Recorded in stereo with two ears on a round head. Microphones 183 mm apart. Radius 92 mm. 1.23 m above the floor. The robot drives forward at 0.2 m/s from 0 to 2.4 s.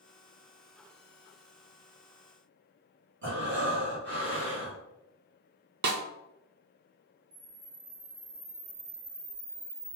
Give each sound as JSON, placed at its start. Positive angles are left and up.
{"t": 3.2, "sound": "breathing", "side_deg": -60, "distance_m": 1.8}
{"t": 5.8, "sound": "a snare drum", "side_deg": -55, "distance_m": 0.5}
{"t": 7.3, "sound": "a camera shutter", "side_deg": -70, "distance_m": 1.1}